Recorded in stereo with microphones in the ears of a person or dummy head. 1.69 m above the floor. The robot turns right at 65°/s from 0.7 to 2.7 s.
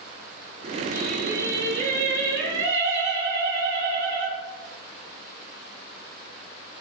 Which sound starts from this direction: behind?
Singing, at 0.9 s.